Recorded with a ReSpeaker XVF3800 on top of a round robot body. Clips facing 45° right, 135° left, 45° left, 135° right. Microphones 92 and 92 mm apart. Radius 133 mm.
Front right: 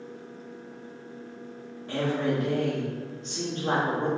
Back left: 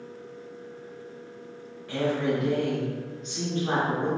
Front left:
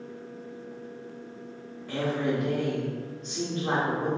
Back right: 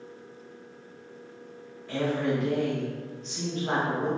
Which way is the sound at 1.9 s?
10° left.